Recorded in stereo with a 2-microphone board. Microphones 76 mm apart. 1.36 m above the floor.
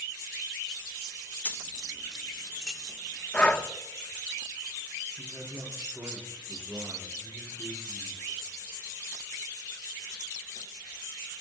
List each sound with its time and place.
1.4 s keys jangling: 20° left (ahead or behind), 0.8 m; by 3.2 s 10° right (ahead or behind), 3 m
3.3 s breathing: 15° left (ahead or behind), 1.1 m
5.2 s a man speaking: 45° right (ahead or behind), 8.5 m